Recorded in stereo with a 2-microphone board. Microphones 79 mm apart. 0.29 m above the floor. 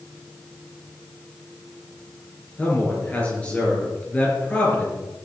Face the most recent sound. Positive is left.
turn(degrees=15)  # may be behind; listen again after turning